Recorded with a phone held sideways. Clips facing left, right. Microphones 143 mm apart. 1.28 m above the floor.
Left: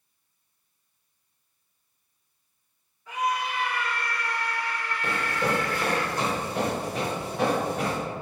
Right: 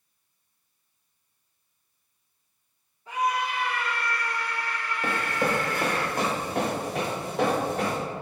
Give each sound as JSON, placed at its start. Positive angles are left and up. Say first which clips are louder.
{"t": 3.1, "sound": "a scream", "louder": "right 1 dB", "side_deg": -30, "distance_m": 1.5}
{"t": 5.0, "sound": "running footsteps", "louder": "right 1 dB", "side_deg": -45, "distance_m": 2.0}